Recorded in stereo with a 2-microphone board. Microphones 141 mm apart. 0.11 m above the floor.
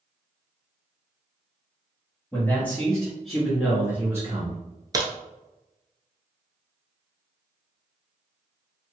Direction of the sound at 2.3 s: 15° left (ahead or behind).